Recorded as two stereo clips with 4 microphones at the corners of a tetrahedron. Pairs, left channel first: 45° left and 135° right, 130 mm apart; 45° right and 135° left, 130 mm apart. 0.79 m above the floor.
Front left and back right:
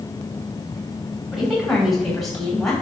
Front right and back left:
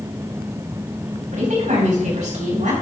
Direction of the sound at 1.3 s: 140° left.